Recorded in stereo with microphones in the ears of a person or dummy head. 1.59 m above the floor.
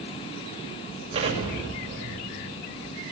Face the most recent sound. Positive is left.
turn(degrees=-30)  # may be behind; listen again after turning